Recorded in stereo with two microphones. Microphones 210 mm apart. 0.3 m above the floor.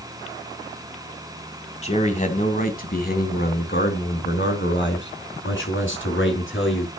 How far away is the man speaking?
About 2.5 m.